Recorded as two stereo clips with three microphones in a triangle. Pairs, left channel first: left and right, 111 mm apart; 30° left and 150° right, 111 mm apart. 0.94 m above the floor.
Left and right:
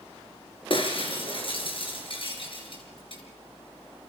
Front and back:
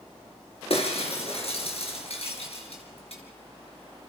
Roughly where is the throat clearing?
I don't hear throat clearing.